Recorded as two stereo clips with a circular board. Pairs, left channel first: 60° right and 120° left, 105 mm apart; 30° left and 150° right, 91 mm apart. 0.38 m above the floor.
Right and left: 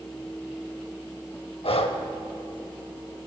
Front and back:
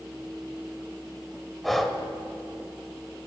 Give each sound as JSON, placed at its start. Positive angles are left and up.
{"t": 1.6, "sound": "breathing", "azimuth_deg": -60, "distance_m": 0.6}